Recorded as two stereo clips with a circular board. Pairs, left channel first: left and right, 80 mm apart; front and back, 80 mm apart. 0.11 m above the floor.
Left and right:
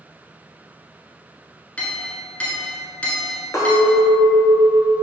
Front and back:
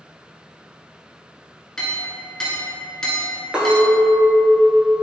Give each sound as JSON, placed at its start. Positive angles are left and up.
{"t": 1.8, "sound": "a clink", "azimuth_deg": 65, "distance_m": 0.6}
{"t": 3.5, "sound": "a clink", "azimuth_deg": 105, "distance_m": 0.9}